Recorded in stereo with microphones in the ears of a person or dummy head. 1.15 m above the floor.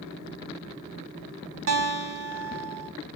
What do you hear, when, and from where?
1.7 s a guitar: 75° right (ahead or behind), 1.4 m